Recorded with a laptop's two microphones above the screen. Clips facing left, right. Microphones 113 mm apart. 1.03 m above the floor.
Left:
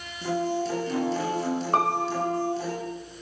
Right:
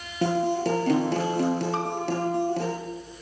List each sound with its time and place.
0.2 s a guitar: 65° right (ahead or behind), 6.5 m
1.7 s a piano: 60° left (ahead or behind), 1.1 m